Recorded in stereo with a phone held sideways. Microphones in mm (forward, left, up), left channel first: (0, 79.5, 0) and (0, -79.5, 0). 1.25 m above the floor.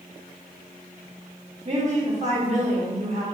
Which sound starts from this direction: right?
A woman speaking, at 1.6 s.